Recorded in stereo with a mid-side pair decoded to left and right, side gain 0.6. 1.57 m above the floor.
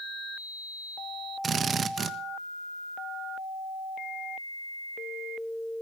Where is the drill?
35° right, 1.4 m.